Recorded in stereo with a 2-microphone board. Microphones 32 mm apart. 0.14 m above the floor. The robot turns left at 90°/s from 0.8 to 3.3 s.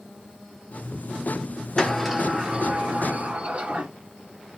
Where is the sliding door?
20° left, 1.3 m; by 3.9 s 115° right, 1.3 m.